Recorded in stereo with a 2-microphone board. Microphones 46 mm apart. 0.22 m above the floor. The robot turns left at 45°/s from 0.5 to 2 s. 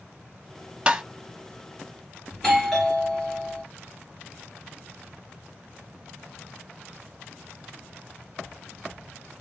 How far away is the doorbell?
About 1.7 m.